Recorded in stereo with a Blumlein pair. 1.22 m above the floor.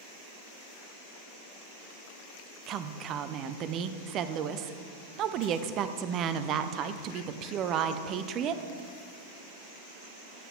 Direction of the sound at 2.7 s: 35° right.